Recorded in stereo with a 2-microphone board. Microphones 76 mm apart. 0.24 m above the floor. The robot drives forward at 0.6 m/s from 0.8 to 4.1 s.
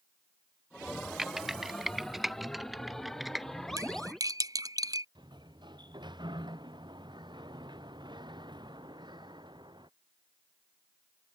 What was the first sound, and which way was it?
Typing on a keyboard, 5° right (ahead or behind).